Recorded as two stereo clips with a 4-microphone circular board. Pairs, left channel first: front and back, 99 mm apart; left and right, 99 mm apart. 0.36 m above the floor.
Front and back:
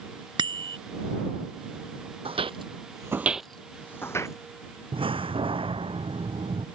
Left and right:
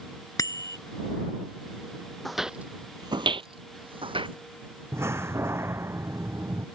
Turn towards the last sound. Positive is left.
turn(degrees=-155)